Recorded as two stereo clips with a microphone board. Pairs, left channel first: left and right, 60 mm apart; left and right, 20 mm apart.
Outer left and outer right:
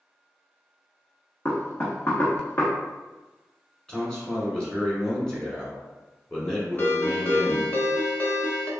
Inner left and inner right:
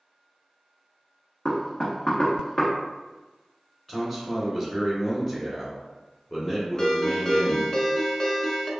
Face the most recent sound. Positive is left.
turn(degrees=35)  # may be behind; listen again after turning